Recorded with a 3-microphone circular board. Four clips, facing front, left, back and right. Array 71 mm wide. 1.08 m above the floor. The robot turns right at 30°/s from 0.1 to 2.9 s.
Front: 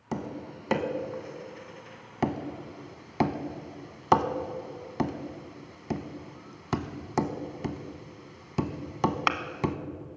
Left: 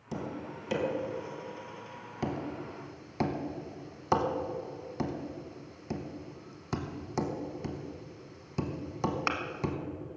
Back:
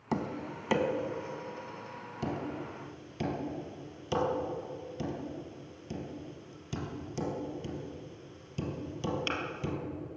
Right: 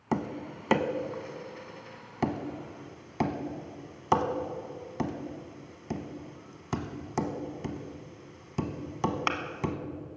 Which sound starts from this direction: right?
Tapping, at 0.1 s.